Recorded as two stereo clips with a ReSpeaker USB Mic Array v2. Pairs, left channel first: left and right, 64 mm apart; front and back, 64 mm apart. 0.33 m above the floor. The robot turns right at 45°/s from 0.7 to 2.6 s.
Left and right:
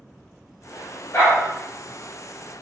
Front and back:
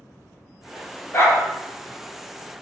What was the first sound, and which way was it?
A dog barking, 40° left.